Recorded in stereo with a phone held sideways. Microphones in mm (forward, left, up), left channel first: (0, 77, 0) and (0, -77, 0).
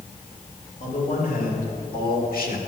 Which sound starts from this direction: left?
A man speaking, at 0.8 s.